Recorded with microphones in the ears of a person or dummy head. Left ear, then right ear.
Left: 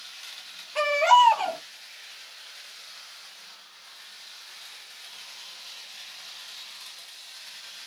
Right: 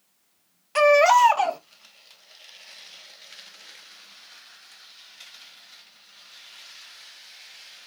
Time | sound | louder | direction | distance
0.8 | a baby crying | right 3 dB | 45° right (ahead or behind) | 1.0 m